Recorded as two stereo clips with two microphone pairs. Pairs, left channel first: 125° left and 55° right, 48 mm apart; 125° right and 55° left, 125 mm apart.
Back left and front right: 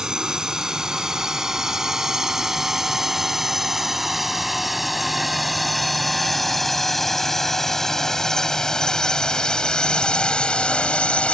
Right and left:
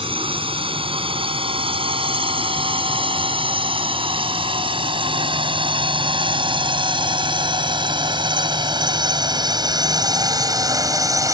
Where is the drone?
25° left; by 11.3 s 90° left.